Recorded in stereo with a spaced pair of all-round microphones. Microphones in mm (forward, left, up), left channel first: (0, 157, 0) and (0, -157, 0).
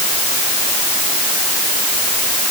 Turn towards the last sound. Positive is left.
No sound to turn to.